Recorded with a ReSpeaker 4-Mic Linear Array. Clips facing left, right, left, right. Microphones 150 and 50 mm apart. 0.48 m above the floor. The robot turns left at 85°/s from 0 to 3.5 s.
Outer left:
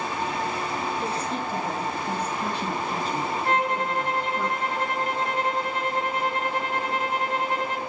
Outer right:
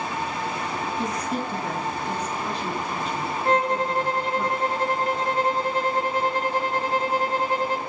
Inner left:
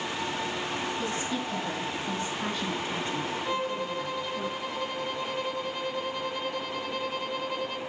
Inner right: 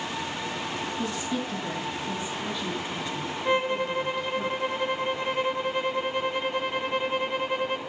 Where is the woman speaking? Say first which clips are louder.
Outer right 1 dB, inner right 1 dB; 145° right, 4 m; by 4.5 s straight ahead, 4 m.